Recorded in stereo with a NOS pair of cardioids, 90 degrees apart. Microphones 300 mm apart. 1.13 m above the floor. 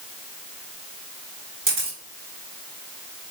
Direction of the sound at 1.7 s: 40° right.